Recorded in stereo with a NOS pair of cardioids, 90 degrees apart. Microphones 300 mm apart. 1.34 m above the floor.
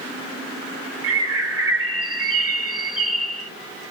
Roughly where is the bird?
Ahead right.